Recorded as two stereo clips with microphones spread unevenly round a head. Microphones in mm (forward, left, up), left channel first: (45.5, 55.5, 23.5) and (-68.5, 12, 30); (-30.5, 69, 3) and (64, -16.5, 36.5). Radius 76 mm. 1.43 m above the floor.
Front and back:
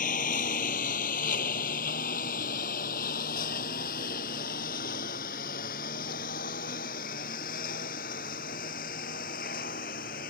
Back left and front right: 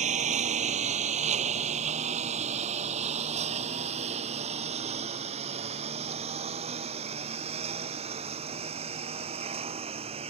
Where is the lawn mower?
15° right; by 10.3 s straight ahead.